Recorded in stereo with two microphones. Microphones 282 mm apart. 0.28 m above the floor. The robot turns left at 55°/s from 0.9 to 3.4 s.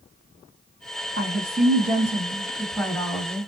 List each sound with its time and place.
1.2 s a woman speaking: 95° right, 1.7 m; by 3.5 s 145° left, 1.7 m